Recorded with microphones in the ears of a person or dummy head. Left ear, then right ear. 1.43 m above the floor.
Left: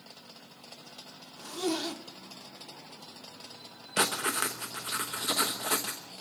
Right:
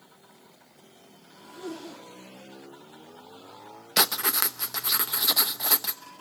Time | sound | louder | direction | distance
1.4 | a zipper | left 7 dB | 60° left (ahead or behind) | 1.7 m
4.0 | writing | right 4 dB | 30° right (ahead or behind) | 0.8 m